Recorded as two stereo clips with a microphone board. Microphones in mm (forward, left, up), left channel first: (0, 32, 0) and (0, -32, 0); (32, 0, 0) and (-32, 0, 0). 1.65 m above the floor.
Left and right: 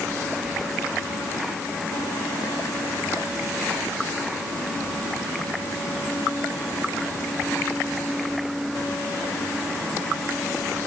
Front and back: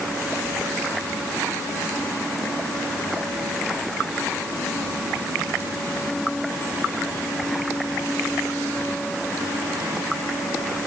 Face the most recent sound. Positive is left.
No sound to turn to.